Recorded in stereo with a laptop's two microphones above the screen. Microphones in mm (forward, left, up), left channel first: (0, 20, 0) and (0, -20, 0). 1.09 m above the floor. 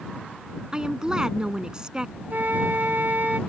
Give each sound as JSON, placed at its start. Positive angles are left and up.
{"t": 0.7, "sound": "a woman speaking", "side_deg": -20}
{"t": 2.3, "sound": "a flute", "side_deg": -50}